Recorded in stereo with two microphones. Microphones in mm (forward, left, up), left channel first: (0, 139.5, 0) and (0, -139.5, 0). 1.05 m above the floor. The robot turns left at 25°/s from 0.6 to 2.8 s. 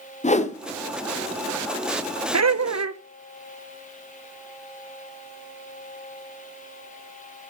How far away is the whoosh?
About 0.7 m.